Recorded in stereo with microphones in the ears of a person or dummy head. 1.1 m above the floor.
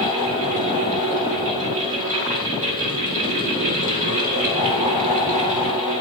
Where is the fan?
40° right (ahead or behind), 3 m.